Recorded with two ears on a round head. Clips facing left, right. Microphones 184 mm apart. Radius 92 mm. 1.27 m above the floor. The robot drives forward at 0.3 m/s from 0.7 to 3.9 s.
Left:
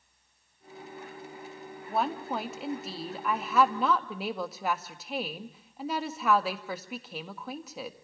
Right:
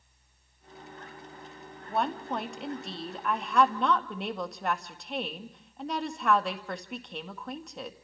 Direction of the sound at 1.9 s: 5° left (ahead or behind).